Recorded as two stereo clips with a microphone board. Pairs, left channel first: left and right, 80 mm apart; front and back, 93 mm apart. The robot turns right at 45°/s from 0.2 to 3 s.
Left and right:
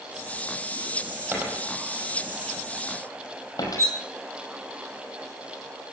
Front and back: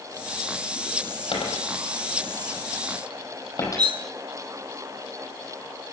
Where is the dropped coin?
25° right, 4.5 m; by 3.9 s 50° left, 4.5 m.